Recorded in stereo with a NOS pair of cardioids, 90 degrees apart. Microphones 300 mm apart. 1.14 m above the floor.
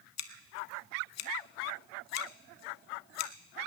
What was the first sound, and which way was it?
Scissors, 60° left.